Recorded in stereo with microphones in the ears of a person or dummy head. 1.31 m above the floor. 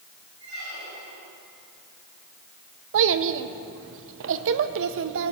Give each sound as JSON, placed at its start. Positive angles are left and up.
{"t": 0.4, "sound": "a squeak", "side_deg": -55, "distance_m": 5.5}
{"t": 2.9, "sound": "a child speaking", "side_deg": -70, "distance_m": 0.9}